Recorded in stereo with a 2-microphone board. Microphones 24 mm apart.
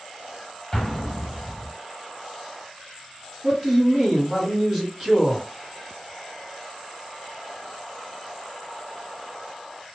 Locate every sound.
0.7 s an explosion: 25° left (ahead or behind), 0.9 m
3.4 s a man speaking: 5° right (ahead or behind), 1.3 m